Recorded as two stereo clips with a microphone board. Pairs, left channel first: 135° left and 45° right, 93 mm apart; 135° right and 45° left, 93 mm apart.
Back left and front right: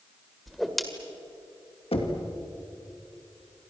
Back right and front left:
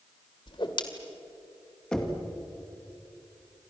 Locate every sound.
0.5 s a whoosh: 135° right, 1.9 m
1.9 s knocking: 145° left, 2.5 m